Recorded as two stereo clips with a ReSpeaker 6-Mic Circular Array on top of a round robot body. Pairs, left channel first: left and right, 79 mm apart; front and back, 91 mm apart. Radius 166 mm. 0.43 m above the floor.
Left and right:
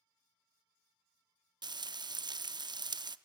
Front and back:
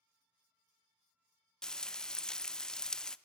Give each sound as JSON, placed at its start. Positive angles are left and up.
{"t": 1.6, "sound": "frying", "azimuth_deg": -80, "distance_m": 0.6}